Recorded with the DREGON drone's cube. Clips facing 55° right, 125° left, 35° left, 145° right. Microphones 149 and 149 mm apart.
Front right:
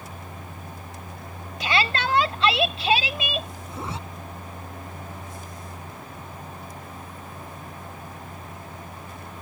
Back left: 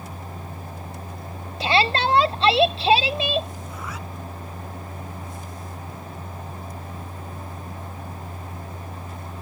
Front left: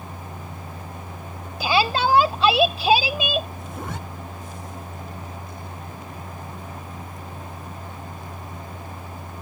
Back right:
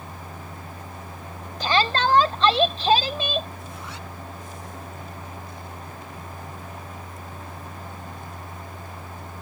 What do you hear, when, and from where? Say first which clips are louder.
1.6 s a shout: back left 4 dB, front left 1 dB; 105° left
3.7 s a zipper: front right 2 dB, front left 6 dB; 5° left